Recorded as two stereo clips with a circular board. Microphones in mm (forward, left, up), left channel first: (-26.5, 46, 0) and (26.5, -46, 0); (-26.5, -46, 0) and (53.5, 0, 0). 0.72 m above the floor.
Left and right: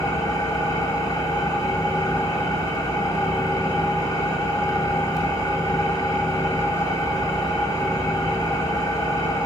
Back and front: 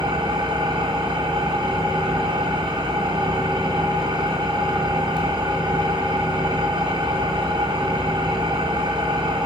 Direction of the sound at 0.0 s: 65° left.